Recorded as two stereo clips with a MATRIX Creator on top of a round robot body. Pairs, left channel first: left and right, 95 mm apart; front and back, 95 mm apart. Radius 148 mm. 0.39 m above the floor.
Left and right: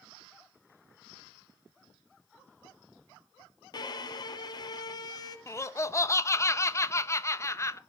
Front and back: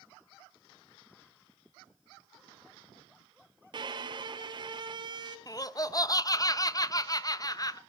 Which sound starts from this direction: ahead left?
Laughter, at 5.5 s.